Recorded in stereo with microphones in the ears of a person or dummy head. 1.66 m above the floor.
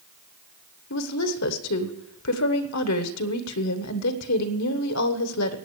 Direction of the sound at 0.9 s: 80° left.